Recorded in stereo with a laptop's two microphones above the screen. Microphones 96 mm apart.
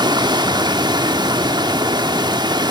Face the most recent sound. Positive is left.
turn(degrees=-55)  # may be behind; listen again after turning